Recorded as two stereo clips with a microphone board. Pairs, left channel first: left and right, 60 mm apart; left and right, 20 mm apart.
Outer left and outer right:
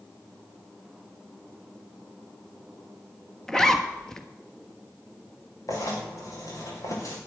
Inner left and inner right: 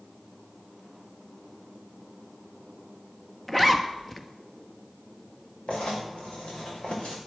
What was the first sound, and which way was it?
A zipper, 10° left (ahead or behind).